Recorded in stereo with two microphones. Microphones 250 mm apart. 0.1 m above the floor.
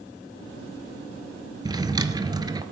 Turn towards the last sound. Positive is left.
turn(degrees=-15)  # may be behind; listen again after turning